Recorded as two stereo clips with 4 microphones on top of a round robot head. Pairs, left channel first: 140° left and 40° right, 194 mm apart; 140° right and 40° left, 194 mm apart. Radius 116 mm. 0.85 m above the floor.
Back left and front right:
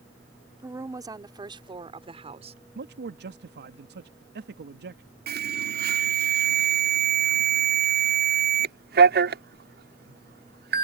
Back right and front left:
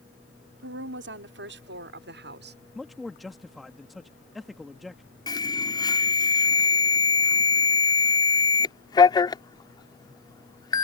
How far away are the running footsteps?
I don't hear running footsteps.